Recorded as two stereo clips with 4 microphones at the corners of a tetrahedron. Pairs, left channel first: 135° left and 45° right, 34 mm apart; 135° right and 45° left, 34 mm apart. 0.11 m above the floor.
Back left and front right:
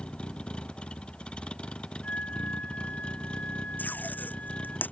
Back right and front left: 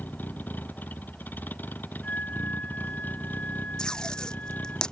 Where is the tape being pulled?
160° left.